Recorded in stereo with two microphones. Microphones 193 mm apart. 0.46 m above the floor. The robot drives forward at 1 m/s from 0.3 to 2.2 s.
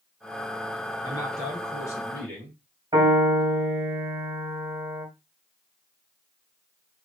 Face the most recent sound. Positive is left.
turn(degrees=-25)  # may be behind; listen again after turning